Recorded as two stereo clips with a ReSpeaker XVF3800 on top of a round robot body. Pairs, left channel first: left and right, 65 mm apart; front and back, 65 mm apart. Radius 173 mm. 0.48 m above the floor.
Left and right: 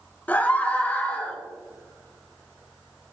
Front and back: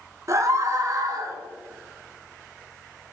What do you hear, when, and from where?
0.3 s a scream: 155° left, 2.0 m